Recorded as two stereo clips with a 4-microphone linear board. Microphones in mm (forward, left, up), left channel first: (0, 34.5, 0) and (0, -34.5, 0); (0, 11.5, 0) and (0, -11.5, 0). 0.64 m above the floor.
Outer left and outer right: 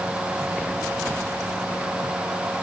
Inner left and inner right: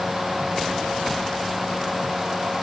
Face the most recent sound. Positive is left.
No sound to turn to.